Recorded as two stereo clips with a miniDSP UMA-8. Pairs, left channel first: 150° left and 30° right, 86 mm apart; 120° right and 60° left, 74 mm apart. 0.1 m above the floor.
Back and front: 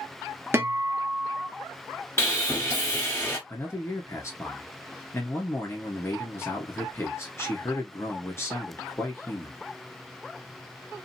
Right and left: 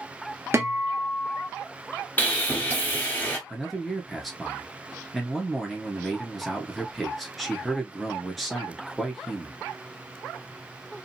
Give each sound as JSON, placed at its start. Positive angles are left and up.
{"t": 0.5, "sound": "a guitar", "azimuth_deg": 20, "distance_m": 1.2}
{"t": 2.2, "sound": "sawing", "azimuth_deg": -170, "distance_m": 1.2}
{"t": 3.5, "sound": "a man speaking", "azimuth_deg": 150, "distance_m": 1.4}